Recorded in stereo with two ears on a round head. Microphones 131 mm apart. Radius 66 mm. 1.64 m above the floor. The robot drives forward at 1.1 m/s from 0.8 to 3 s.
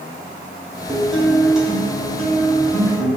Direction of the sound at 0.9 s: 5° right (ahead or behind).